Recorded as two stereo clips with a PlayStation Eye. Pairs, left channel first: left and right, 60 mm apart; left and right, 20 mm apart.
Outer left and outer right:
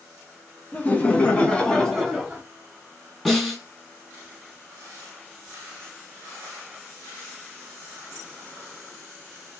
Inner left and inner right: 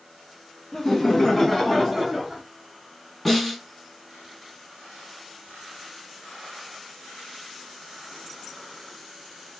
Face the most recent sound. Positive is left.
turn(degrees=10)  # may be behind; listen again after turning